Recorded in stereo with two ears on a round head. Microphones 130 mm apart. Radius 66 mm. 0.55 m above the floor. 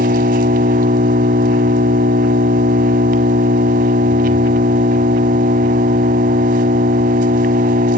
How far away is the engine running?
About 1.0 m.